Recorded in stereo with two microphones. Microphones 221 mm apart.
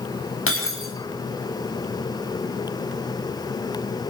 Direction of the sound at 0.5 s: 75° left (ahead or behind).